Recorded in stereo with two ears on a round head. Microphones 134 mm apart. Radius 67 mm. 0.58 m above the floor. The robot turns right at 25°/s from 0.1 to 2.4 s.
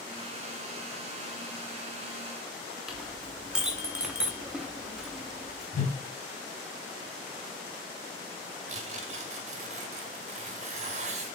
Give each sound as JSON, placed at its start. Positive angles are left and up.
{"t": 2.9, "sound": "a clink", "side_deg": -5, "distance_m": 0.7}
{"t": 5.7, "sound": "a whoosh", "side_deg": 55, "distance_m": 0.8}
{"t": 8.7, "sound": "tearing paper", "side_deg": -45, "distance_m": 0.8}